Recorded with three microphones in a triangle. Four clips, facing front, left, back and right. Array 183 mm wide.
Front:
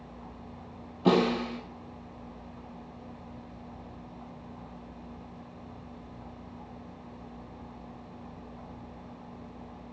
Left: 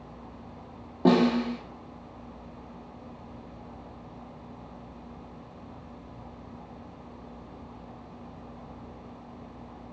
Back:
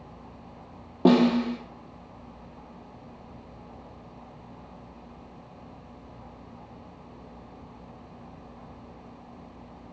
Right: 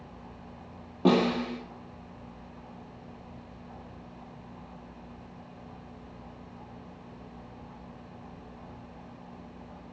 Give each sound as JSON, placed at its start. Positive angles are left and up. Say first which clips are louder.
{"t": 1.1, "sound": "a snare drum", "louder": "left 2 dB, back 5 dB", "azimuth_deg": 175, "distance_m": 1.8}